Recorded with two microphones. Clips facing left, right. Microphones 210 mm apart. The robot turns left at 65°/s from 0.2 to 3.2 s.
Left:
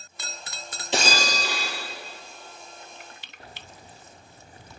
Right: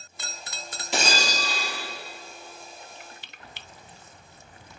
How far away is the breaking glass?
About 2.5 m.